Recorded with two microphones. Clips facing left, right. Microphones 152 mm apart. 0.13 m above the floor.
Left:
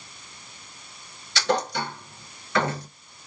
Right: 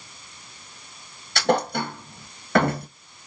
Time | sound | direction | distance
1.4 | a thud | 55° right (ahead or behind) | 0.8 m